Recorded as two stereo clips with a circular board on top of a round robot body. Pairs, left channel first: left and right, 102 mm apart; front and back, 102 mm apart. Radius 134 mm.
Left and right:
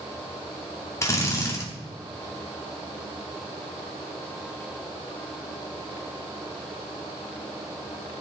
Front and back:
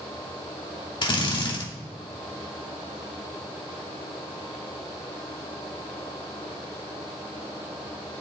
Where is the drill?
35° left, 3 m.